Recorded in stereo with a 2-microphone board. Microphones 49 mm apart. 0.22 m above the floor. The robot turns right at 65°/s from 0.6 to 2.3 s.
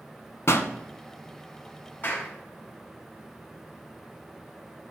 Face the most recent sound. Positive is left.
turn(degrees=30)  # may be behind; listen again after turning